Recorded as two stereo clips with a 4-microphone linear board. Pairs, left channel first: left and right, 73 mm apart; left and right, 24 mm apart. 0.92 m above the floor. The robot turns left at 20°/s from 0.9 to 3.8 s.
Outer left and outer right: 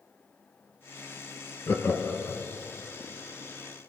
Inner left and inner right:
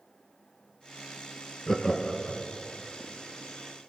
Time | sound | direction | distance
1.7 | laughter | 35° left (ahead or behind) | 0.6 m